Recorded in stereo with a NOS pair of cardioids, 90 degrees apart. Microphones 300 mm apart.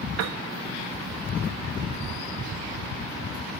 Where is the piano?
55° right, 1.0 m.